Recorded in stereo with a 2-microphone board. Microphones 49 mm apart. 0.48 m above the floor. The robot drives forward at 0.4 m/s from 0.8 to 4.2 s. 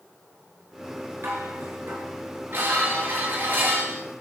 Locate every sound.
1.2 s dishes clattering: 60° right (ahead or behind), 5 m; by 4.0 s 50° right (ahead or behind), 5.5 m